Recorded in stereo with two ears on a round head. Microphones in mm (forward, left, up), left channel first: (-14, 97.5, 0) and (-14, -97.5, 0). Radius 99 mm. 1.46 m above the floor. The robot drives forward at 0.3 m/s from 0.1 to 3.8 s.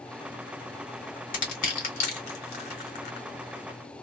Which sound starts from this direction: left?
Crushing, at 1.3 s.